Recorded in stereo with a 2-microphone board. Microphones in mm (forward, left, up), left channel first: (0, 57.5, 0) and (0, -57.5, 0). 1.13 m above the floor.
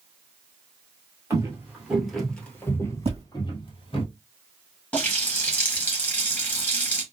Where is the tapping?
70° right (ahead or behind), 1.5 m.